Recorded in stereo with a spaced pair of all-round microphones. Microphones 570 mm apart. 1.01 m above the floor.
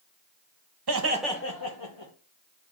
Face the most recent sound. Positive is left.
turn(degrees=55)  # may be behind; listen again after turning